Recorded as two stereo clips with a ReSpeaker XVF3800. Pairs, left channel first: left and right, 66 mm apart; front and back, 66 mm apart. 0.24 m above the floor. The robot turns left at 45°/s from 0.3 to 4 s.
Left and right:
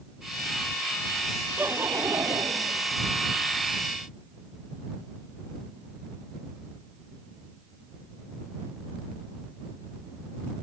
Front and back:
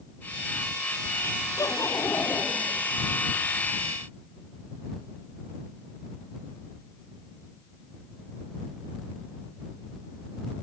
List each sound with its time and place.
1.6 s laughter: 25° right; by 2.9 s 90° right